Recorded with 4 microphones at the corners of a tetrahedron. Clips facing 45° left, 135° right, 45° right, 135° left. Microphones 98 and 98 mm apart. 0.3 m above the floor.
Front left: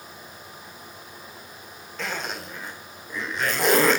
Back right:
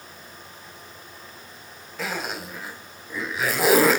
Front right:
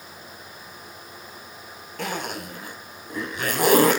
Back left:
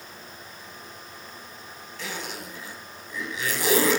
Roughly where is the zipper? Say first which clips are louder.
Back right 1 dB, front right 6 dB; ahead right.